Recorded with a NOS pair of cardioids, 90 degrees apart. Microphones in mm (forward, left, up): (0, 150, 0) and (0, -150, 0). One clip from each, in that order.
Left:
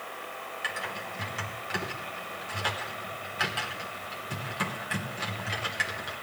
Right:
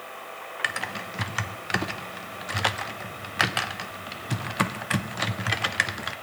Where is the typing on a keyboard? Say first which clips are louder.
Right 5 dB; 55° right, 0.9 m.